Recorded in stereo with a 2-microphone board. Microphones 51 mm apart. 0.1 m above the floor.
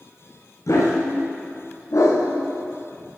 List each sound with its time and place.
0.7 s a dog barking: 70° left (ahead or behind), 4 m